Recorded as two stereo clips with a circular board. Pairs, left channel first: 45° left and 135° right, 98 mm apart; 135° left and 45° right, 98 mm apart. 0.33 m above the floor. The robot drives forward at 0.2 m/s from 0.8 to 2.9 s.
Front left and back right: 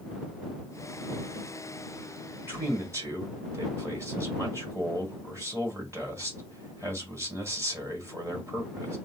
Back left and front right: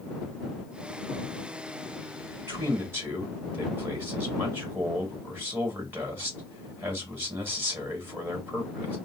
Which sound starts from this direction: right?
A man speaking, at 2.5 s.